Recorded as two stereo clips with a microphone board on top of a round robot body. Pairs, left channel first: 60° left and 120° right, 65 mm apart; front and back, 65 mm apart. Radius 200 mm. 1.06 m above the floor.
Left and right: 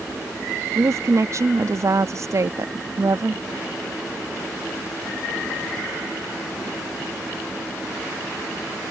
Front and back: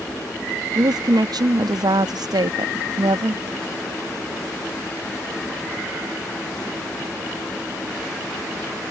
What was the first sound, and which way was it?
A woman speaking, 165° right.